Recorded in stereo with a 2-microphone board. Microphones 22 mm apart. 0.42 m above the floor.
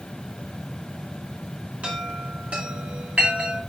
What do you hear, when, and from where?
1.8 s a chime: 60° right (ahead or behind), 3.5 m